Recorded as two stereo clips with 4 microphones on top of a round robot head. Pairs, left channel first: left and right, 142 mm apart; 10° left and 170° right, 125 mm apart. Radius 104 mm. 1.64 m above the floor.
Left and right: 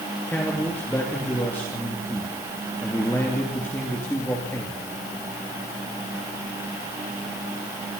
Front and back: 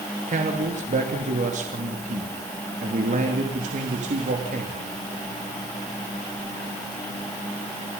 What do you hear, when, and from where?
0.3 s a man speaking: 170° left, 3 m